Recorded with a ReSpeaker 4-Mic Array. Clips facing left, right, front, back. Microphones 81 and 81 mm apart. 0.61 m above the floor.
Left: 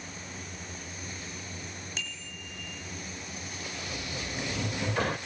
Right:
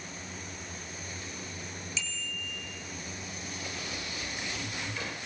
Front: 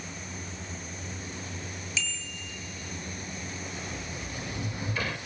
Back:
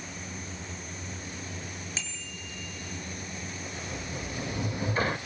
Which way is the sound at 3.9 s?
125° left.